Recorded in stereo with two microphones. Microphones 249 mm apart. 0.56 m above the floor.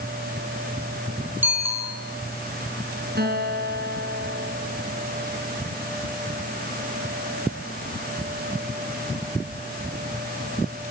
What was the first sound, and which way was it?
A bicycle bell, 10° right (ahead or behind).